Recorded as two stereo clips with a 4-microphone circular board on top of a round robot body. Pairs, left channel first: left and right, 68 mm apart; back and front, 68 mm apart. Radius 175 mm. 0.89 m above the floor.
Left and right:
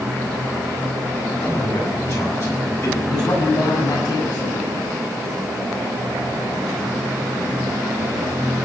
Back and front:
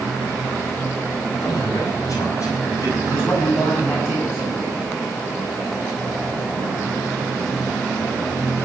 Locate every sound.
1.4 s a man speaking: 130° left, 8.5 m
3.1 s a man speaking: 120° left, 8 m